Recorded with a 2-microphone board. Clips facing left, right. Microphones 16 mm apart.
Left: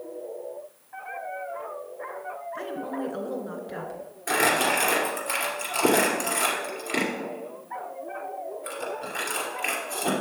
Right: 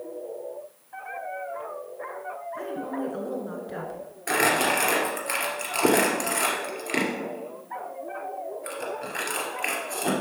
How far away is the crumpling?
About 2.5 m.